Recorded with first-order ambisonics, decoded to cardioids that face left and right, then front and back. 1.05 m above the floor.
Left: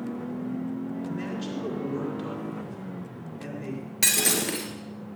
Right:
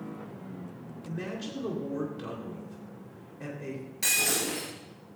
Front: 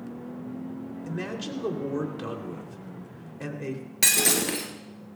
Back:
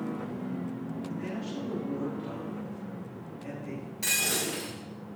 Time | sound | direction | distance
1.1 | a man speaking | straight ahead | 3 m
4.0 | breaking glass | 35° left | 3 m